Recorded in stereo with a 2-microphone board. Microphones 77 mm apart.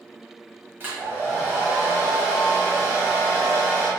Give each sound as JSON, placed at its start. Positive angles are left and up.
{"t": 0.8, "sound": "a hair dryer", "side_deg": -30, "distance_m": 1.4}